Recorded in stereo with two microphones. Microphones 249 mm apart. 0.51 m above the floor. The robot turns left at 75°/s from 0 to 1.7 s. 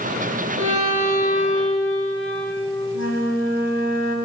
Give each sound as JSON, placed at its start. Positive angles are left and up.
{"t": 0.6, "sound": "a violin", "azimuth_deg": -125, "distance_m": 5.0}
{"t": 2.9, "sound": "a flute", "side_deg": 85, "distance_m": 1.7}